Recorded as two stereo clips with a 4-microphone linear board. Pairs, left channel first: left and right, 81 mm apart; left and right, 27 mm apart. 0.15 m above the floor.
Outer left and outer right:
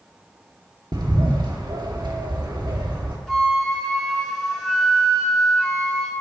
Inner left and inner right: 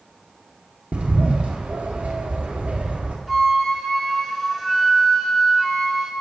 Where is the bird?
60° right (ahead or behind), 2 m.